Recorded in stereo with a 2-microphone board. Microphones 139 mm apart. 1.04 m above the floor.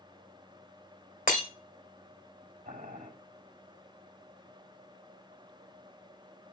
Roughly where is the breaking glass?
Left.